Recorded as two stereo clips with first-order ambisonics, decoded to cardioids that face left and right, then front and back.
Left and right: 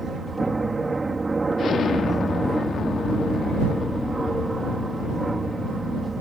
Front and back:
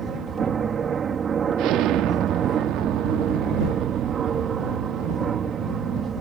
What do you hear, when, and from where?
0.0 s an aircraft: 155° right
1.6 s an explosion: 150° left